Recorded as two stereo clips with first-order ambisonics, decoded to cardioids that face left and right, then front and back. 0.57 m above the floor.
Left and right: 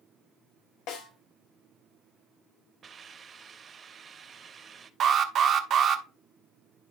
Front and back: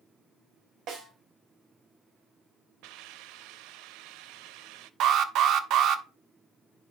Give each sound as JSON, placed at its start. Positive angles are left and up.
{"t": 0.9, "sound": "a snare drum", "azimuth_deg": 130, "distance_m": 3.0}
{"t": 2.8, "sound": "a hiss", "azimuth_deg": -160, "distance_m": 0.6}
{"t": 5.0, "sound": "an alarm", "azimuth_deg": -140, "distance_m": 0.9}